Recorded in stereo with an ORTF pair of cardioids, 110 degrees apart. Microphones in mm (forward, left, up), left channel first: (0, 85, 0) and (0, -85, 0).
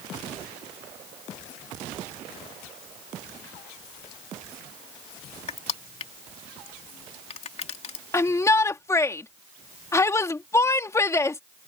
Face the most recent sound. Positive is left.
turn(degrees=15)